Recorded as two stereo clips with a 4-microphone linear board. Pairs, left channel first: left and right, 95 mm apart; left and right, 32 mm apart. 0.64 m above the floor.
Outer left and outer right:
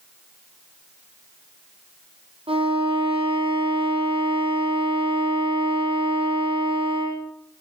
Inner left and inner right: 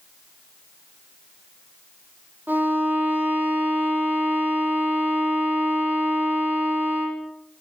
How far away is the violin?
About 3.5 m.